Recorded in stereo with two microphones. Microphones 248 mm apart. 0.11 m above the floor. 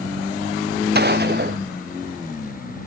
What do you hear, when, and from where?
0.9 s a gunshot: 40° right (ahead or behind)